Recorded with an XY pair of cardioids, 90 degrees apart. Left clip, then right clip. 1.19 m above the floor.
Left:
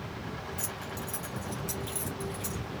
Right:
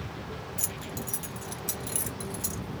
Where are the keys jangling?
55° right, 1.3 m; by 2.6 s 70° right, 2.5 m.